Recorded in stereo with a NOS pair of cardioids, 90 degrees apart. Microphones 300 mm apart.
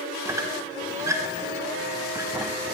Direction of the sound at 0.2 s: 10° right.